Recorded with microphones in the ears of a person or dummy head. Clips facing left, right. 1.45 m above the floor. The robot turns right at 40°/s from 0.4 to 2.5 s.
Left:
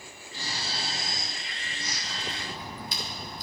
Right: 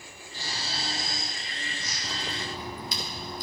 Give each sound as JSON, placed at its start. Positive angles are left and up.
{"t": 0.3, "sound": "snoring", "azimuth_deg": 75, "distance_m": 2.5}
{"t": 2.0, "sound": "a crack", "side_deg": -65, "distance_m": 1.8}